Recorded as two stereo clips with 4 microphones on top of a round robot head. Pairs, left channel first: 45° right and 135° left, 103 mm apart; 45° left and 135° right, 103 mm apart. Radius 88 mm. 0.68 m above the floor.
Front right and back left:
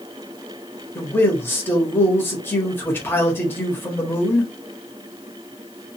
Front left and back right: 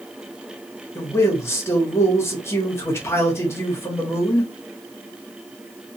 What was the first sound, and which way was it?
A man speaking, 5° left.